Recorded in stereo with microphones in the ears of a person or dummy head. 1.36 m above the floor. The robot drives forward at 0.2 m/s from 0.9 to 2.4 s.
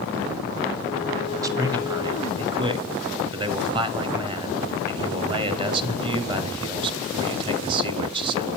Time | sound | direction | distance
1.4 | a man speaking | 20° right (ahead or behind) | 0.6 m